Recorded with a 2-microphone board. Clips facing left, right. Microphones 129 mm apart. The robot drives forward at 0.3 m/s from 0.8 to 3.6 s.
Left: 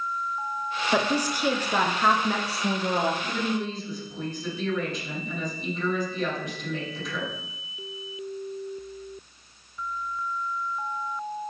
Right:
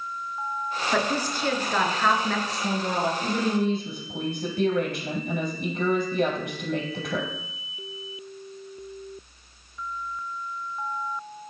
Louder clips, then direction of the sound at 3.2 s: Right 4 dB; 65° right (ahead or behind).